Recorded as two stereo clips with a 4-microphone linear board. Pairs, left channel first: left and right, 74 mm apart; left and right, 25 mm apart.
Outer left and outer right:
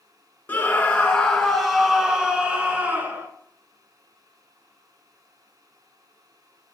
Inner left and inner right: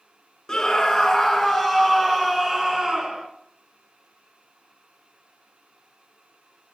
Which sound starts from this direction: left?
A scream, at 0.5 s.